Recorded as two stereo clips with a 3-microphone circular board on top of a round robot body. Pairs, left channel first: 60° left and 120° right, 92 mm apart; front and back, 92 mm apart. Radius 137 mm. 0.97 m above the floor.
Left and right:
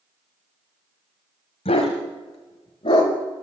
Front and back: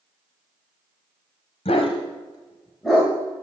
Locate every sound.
1.6 s a dog barking: 35° left, 1.4 m; by 3.1 s 105° left, 1.1 m